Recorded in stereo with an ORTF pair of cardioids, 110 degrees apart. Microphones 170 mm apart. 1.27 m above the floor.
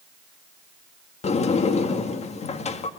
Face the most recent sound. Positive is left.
turn(degrees=40)